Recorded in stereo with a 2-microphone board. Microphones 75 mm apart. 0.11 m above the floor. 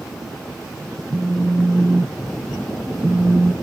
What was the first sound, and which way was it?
A phone buzzing, 30° right (ahead or behind).